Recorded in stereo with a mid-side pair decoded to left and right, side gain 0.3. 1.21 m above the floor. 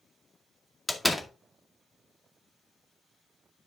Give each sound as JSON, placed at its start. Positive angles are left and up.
{"t": 0.9, "sound": "a door slam", "azimuth_deg": 15, "distance_m": 2.0}